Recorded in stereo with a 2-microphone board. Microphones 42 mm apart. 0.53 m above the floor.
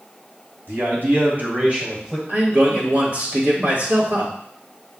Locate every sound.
0.7 s a man speaking: 60° right (ahead or behind), 3 m; by 2.2 s 15° right (ahead or behind), 2.5 m
2.3 s a man speaking: 40° right (ahead or behind), 2.5 m